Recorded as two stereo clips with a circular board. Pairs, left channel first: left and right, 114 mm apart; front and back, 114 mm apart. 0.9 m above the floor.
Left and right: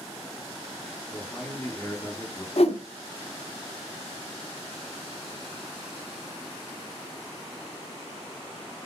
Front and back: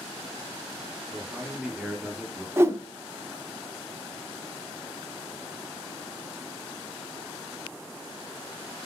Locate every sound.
1.1 s a man speaking: 105° left, 0.7 m
2.6 s a whoosh: 115° left, 0.5 m